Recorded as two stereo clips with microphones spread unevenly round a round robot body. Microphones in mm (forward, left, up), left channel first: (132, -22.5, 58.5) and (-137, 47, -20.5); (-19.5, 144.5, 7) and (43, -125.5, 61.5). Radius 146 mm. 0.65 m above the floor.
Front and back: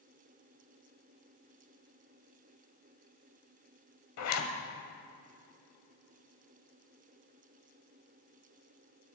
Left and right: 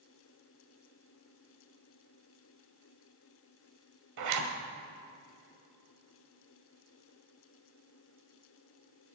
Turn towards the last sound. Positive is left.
turn(degrees=-50)